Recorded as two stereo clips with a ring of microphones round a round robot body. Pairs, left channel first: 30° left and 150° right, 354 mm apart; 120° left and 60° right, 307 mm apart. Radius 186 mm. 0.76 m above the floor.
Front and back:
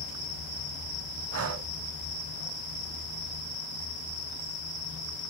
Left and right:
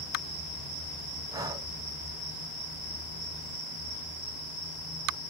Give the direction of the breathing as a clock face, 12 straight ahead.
4 o'clock.